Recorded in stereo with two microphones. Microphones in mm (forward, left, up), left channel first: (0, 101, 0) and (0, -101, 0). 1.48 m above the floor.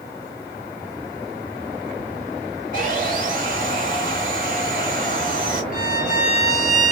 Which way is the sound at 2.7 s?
45° right (ahead or behind).